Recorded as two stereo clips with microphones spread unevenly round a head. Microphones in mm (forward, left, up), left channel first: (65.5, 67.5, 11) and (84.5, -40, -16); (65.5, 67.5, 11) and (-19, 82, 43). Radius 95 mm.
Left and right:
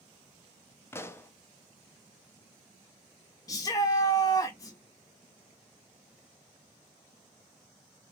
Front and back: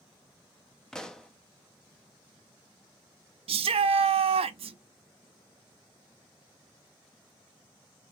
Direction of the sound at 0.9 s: 25° left.